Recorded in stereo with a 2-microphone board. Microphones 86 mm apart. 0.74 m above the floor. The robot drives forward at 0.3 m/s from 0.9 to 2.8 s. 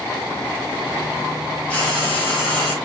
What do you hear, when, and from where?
1.7 s frying: 15° left (ahead or behind), 1.0 m; by 2.8 s 10° left (ahead or behind), 1.3 m